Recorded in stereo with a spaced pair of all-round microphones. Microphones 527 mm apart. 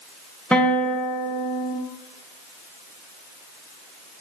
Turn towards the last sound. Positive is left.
turn(degrees=0)  # may be behind; listen again after turning